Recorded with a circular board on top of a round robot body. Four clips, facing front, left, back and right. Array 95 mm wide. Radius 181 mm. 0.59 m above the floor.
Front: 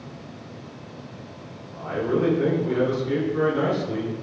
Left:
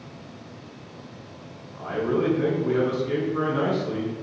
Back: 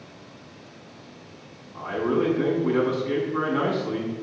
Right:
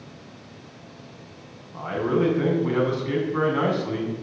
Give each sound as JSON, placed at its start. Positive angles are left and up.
{"t": 1.7, "sound": "a man speaking", "azimuth_deg": -105, "distance_m": 8.0}